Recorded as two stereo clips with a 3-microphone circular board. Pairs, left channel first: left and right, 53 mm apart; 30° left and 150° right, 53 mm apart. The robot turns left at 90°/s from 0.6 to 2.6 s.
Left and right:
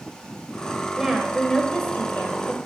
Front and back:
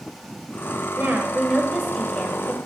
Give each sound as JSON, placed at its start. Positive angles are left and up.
{"t": 1.0, "sound": "a woman speaking", "azimuth_deg": -155, "distance_m": 1.0}